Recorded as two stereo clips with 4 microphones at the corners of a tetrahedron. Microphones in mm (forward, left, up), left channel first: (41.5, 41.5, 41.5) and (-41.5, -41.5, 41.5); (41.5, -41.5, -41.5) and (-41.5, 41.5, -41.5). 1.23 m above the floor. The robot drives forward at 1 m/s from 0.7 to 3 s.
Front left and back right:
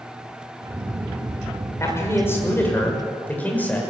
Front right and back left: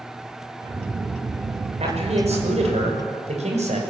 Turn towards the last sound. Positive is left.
turn(degrees=120)